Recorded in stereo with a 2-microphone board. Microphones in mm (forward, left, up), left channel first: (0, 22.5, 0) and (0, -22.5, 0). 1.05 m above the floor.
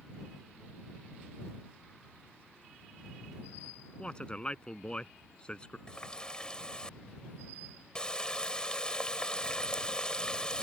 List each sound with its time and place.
4.0 s a man speaking: 20° left (ahead or behind)
5.9 s a running tap: 20° left (ahead or behind)